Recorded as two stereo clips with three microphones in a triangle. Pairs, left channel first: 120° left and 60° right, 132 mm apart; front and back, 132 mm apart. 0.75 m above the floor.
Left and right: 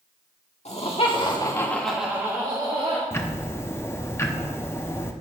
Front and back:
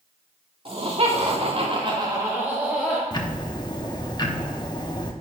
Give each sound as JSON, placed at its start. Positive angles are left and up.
{"t": 0.7, "sound": "laughter", "azimuth_deg": 145, "distance_m": 2.0}
{"t": 3.1, "sound": "ticking", "azimuth_deg": 50, "distance_m": 0.8}